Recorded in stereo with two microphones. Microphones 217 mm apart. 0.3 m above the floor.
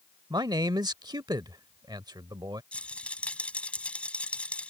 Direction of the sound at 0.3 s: 20° right (ahead or behind).